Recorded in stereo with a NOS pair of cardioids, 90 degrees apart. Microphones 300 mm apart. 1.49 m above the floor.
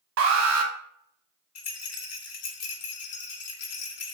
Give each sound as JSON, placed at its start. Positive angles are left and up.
{"t": 0.2, "sound": "an alarm", "azimuth_deg": -55, "distance_m": 0.6}
{"t": 1.6, "sound": "a rattle", "azimuth_deg": 55, "distance_m": 0.7}